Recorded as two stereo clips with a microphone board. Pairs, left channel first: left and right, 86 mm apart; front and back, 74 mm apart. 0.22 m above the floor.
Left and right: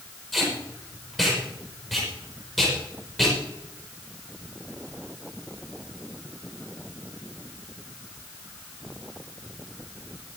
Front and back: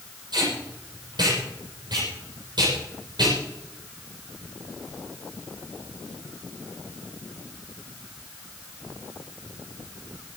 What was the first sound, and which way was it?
Tape being pulled, 175° left.